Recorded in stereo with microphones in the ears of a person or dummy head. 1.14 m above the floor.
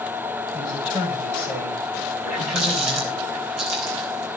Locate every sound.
0.5 s a man speaking: 20° right (ahead or behind), 7 m
2.2 s a running tap: 70° right (ahead or behind), 8 m